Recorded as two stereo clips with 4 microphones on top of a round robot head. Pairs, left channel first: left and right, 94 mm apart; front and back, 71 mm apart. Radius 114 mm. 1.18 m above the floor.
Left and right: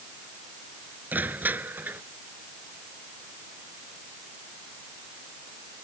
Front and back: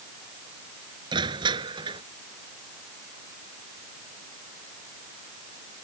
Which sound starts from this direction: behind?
Crushing, at 1.1 s.